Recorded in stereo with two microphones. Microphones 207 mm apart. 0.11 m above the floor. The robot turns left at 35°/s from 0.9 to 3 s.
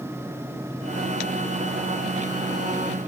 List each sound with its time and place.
Only background noise.